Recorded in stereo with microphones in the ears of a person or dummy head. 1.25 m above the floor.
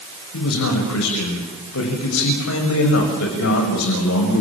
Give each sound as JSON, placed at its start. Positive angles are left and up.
{"t": 0.3, "sound": "a man speaking", "side_deg": 70, "distance_m": 7.0}